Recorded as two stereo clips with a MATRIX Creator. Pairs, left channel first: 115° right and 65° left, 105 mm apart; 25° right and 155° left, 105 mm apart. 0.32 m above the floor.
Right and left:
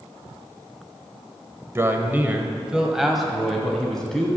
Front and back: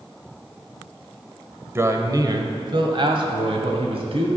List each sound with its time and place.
1.8 s a man speaking: 110° left, 1.0 m; by 4.3 s 165° left, 2 m